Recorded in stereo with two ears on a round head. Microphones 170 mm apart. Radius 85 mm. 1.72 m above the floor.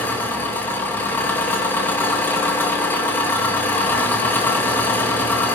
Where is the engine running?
10° left (ahead or behind), 2.5 m.